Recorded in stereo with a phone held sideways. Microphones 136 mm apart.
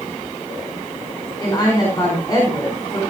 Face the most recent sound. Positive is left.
turn(degrees=25)  # may be behind; listen again after turning